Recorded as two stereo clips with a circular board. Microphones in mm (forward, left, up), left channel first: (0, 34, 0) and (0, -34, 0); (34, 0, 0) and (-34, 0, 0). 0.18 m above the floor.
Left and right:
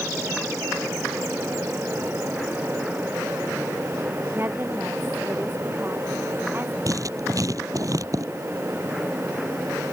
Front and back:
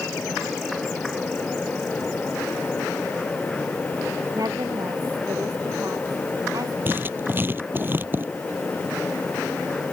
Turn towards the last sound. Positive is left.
turn(degrees=-120)